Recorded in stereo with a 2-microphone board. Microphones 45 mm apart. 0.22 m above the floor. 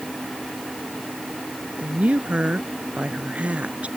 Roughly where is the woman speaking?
Right.